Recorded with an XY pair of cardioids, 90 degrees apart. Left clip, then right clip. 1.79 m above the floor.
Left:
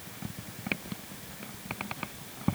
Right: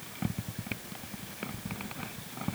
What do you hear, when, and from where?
Only background noise.